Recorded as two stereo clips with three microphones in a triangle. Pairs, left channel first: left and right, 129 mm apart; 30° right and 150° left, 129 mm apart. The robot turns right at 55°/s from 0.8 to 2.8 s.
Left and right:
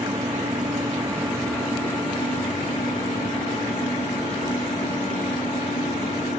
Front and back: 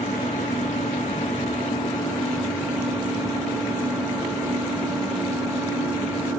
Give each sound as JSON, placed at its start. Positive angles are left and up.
{"t": 0.0, "sound": "an engine running", "azimuth_deg": -35, "distance_m": 3.0}